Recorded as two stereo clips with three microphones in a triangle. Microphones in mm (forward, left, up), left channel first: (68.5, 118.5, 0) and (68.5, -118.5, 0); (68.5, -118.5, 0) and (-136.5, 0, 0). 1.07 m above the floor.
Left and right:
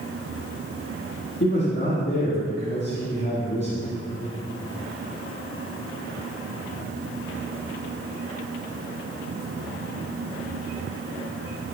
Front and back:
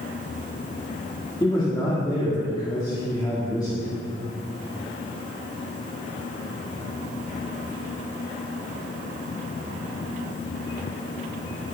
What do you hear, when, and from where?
1.4 s a man speaking: 45° left, 1.6 m